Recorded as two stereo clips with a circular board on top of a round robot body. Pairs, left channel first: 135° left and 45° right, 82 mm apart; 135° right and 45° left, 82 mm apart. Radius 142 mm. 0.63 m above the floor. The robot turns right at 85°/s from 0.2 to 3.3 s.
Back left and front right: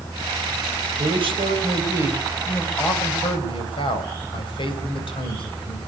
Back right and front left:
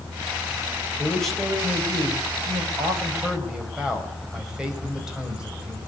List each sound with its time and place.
1.0 s a man speaking: 70° right, 3.5 m; by 5.8 s 125° left, 3.5 m